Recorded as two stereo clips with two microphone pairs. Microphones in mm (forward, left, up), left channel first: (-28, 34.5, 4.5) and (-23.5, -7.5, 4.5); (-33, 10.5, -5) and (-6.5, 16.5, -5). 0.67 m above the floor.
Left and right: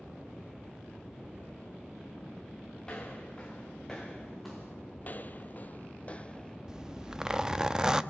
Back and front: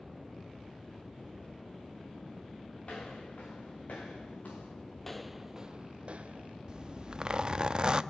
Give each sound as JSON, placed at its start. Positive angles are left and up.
{"t": 2.8, "sound": "footsteps", "azimuth_deg": 160, "distance_m": 5.0}
{"t": 5.0, "sound": "footsteps", "azimuth_deg": 120, "distance_m": 0.9}
{"t": 6.7, "sound": "a zipper", "azimuth_deg": -20, "distance_m": 0.7}